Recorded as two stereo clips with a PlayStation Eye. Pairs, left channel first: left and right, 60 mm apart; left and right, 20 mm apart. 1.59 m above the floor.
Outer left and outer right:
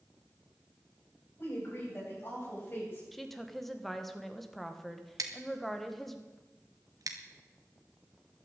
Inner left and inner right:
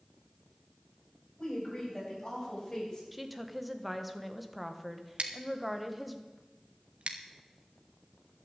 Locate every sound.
1.4 s a woman speaking: 40° left (ahead or behind), 9 m; by 3.0 s 35° left (ahead or behind), 8.5 m
3.1 s a woman speaking: 5° left (ahead or behind), 1.4 m
5.2 s scissors: 75° right (ahead or behind), 1.4 m